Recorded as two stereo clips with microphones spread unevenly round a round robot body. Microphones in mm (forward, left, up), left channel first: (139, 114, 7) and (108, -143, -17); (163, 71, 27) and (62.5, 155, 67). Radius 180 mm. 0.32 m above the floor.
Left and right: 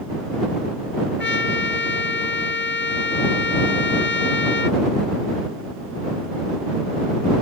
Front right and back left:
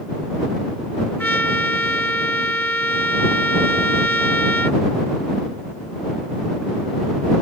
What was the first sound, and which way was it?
A trumpet, 40° left.